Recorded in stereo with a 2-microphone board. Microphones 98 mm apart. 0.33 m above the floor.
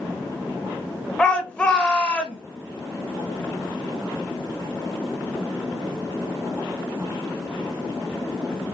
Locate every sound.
1.2 s a shout: 10° left (ahead or behind), 1.0 m